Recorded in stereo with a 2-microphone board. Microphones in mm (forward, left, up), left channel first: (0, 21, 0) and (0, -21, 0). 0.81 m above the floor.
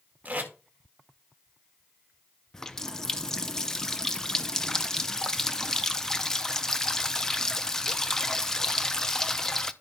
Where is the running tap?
10° left (ahead or behind), 0.5 m.